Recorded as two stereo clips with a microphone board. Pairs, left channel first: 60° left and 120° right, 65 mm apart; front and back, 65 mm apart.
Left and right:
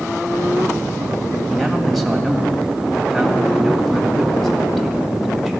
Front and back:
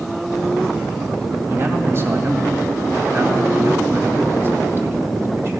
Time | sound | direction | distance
1.5 | a man speaking | 145° left | 2 m